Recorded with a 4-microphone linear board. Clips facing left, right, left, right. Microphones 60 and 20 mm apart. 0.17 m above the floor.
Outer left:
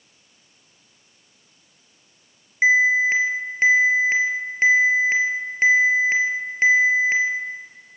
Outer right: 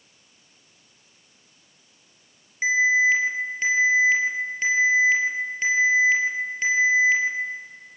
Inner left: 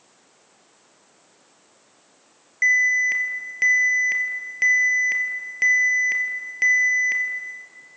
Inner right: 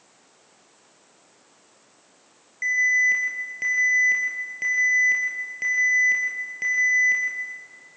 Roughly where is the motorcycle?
I don't hear a motorcycle.